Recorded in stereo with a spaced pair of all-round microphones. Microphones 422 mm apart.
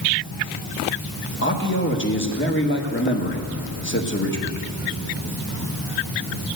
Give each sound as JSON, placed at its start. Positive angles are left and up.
{"t": 1.4, "sound": "a man speaking", "side_deg": 25, "distance_m": 1.5}